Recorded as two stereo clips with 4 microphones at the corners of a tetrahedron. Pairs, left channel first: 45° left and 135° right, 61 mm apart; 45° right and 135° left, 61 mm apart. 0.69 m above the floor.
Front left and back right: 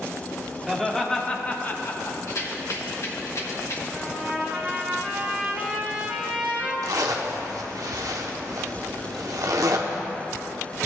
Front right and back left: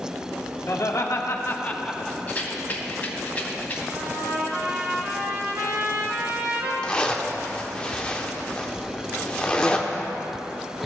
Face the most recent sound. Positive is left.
turn(degrees=-120)